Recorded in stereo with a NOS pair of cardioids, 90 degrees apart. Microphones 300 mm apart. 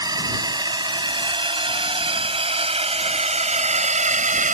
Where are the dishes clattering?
I don't hear dishes clattering.